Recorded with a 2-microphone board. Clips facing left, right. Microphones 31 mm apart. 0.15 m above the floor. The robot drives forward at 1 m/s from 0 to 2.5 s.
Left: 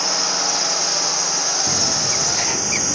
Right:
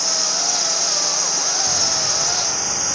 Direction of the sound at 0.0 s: 25° left (ahead or behind).